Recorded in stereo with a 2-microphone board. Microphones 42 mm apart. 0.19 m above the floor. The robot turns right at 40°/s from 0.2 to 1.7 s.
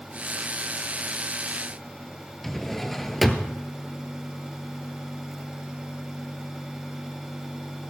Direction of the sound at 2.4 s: 5° left (ahead or behind).